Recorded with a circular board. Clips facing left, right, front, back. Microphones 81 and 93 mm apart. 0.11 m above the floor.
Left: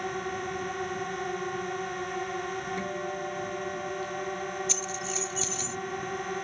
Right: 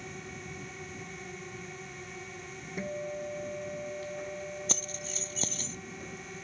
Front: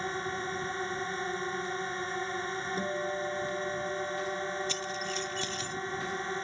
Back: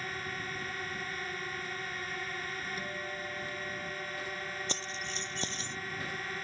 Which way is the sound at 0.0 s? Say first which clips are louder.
Left 11 dB, front 6 dB; 60° left.